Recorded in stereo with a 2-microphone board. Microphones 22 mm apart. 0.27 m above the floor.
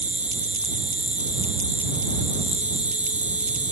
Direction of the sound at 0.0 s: 75° right (ahead or behind).